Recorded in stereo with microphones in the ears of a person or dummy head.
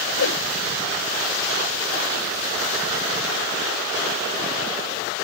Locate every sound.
0.2 s a whoosh: 85° left